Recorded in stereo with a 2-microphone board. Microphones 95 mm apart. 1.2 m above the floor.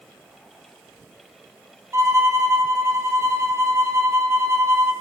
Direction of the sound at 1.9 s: 30° right (ahead or behind).